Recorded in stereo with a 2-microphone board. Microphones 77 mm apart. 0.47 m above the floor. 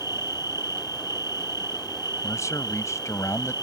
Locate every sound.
0.0 s an insect: 60° left (ahead or behind)
2.2 s a man speaking: 45° left (ahead or behind)